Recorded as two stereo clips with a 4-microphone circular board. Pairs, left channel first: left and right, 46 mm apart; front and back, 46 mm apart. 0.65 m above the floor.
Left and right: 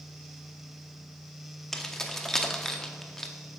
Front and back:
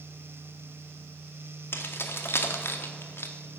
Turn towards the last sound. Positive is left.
turn(degrees=10)